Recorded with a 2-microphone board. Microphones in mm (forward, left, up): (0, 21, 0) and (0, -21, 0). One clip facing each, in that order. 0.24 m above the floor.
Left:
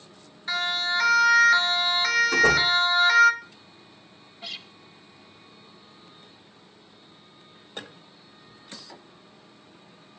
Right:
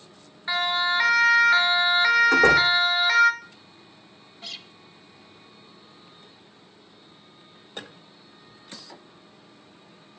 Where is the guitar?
10° left (ahead or behind), 1.2 m.